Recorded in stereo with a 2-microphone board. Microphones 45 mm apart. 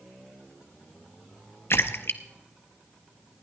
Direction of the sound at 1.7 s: 65° left (ahead or behind).